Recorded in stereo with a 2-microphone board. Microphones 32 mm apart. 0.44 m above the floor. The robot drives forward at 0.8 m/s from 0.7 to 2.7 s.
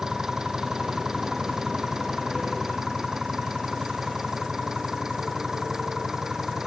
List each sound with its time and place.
0.0 s an engine running: 15° right (ahead or behind)